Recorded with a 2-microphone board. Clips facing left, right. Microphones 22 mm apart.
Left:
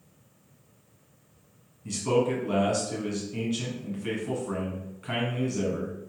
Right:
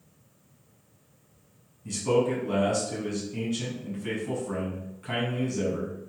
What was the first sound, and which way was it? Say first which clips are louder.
A man speaking: even; 10° left (ahead or behind).